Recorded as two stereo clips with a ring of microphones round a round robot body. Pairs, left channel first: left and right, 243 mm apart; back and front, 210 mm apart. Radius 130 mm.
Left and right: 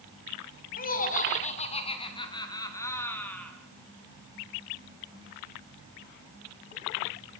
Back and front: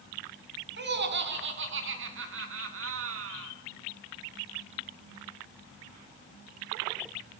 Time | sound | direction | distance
0.8 | laughter | 35° left | 4 m